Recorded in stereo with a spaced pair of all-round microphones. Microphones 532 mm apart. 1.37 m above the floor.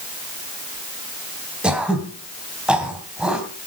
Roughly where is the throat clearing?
Centre.